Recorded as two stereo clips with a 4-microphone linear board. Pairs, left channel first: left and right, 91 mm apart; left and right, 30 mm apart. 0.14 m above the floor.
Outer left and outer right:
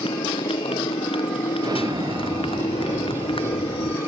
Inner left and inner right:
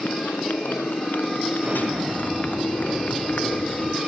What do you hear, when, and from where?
0.0 s a motorcycle: 85° left; by 4.1 s 80° left
1.6 s an explosion: 50° right (ahead or behind)